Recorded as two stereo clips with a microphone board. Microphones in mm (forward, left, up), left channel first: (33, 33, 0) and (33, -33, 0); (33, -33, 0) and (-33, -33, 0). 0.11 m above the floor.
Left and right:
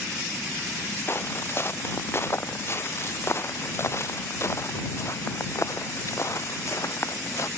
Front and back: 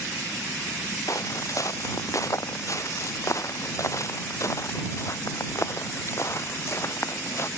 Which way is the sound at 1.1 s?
35° left.